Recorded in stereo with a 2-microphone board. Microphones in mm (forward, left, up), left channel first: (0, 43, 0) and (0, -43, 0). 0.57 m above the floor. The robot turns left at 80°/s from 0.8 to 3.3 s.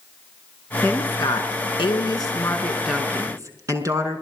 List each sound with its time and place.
0.8 s a woman speaking: 160° left, 6 m; by 4.2 s 40° right, 6 m